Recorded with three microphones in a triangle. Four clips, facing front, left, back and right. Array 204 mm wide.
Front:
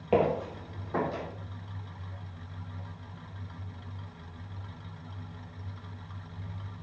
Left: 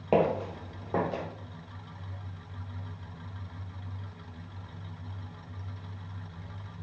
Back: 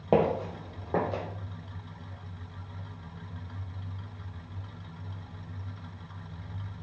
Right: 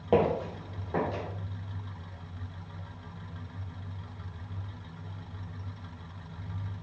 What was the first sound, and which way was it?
Footsteps, 170° left.